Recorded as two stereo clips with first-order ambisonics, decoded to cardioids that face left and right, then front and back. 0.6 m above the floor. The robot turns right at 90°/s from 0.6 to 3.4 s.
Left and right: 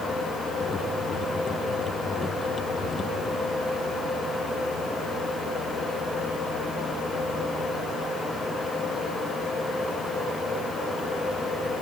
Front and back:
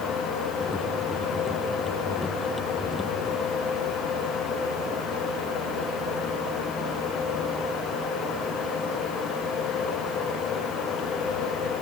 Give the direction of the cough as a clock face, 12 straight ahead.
I don't hear a cough.